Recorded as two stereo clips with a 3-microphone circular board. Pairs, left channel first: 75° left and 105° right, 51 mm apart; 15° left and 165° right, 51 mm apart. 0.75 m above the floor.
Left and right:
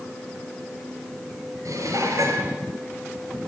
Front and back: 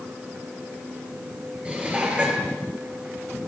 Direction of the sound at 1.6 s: 95° right.